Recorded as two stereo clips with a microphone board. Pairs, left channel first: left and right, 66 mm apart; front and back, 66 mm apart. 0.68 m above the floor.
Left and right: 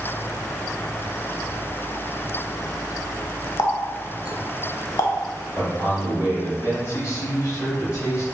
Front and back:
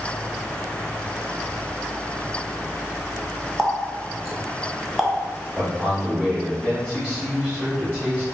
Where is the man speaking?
115° left, 1.7 m.